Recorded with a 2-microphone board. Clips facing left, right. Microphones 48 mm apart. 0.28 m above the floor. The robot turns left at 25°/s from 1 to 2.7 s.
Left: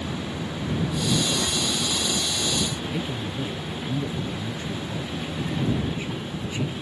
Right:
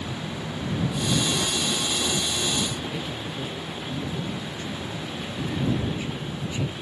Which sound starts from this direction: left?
A man speaking, at 2.9 s.